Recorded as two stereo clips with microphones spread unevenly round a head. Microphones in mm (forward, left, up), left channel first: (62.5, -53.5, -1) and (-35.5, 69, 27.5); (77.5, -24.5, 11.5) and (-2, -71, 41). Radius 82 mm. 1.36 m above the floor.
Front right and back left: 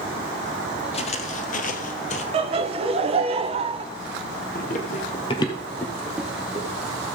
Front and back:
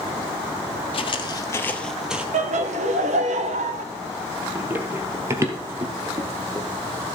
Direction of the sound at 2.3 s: 170° right.